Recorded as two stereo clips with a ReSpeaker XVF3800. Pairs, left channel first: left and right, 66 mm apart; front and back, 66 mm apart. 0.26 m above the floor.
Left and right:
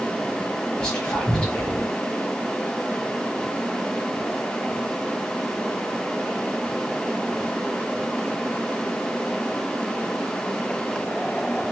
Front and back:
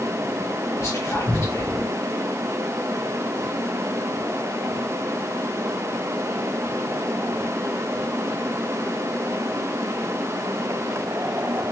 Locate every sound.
0.8 s whispering: 25° left, 1.5 m